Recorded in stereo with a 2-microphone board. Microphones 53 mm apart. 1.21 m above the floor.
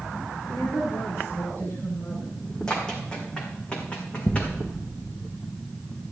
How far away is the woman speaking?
About 2 m.